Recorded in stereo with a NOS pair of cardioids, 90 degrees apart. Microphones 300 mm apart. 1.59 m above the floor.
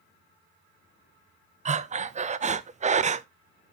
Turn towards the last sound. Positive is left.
turn(degrees=-25)